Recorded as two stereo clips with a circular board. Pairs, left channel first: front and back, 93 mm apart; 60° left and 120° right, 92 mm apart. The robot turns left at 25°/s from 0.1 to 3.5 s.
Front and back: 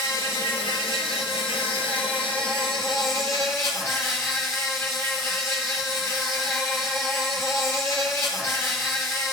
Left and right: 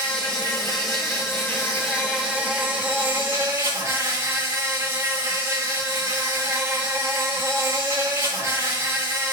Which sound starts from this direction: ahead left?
An insect, at 0.0 s.